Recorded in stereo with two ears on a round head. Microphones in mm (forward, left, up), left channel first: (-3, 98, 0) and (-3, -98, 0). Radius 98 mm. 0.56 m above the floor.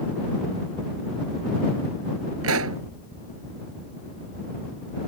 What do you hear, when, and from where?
2.4 s a pop: 70° right (ahead or behind)